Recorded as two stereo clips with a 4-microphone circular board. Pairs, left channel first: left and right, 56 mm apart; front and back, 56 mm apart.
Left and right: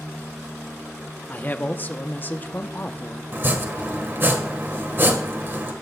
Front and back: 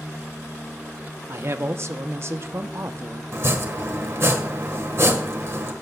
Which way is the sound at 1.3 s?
140° left.